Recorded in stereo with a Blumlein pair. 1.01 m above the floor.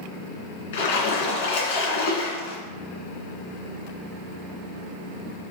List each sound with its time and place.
0.7 s a splash: 55° left, 2.5 m